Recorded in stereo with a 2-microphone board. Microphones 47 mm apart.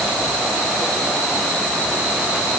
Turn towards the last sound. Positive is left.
No sound to turn to.